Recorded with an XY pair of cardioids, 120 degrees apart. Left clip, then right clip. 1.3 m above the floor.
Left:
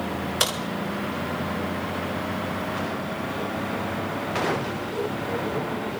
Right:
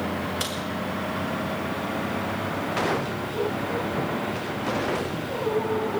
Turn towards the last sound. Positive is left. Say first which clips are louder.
# left 10 dB
turn(degrees=45)